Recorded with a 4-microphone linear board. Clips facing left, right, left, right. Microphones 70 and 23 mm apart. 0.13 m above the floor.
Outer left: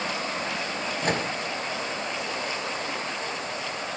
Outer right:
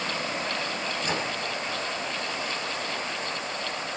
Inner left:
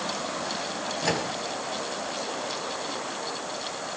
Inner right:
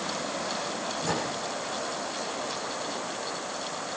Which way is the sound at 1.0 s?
55° left (ahead or behind).